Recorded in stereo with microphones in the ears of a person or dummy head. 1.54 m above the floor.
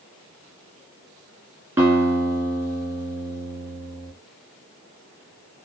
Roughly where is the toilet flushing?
No toilet flushing in this recording.